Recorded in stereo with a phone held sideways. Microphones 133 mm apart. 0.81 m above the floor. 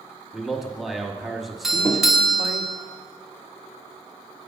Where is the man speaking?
Centre (ahead or behind), 1.1 m.